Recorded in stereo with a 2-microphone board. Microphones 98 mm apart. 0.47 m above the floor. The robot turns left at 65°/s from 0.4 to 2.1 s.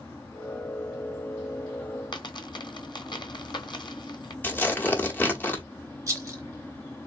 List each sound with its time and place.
2.1 s a dropped coin: 50° left (ahead or behind), 0.8 m
4.4 s tearing paper: 20° left (ahead or behind), 0.9 m
6.1 s a rattle: 35° right (ahead or behind), 0.9 m